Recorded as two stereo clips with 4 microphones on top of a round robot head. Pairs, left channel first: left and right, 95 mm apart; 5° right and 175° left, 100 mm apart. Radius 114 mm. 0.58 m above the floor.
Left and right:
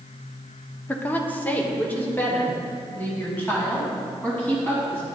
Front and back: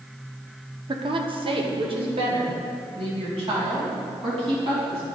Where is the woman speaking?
160° left, 1.1 m.